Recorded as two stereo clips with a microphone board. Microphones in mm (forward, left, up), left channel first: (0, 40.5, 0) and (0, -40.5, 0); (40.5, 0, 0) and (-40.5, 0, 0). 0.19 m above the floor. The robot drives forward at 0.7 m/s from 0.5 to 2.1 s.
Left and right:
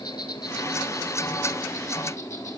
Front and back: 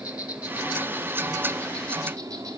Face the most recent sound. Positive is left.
turn(degrees=135)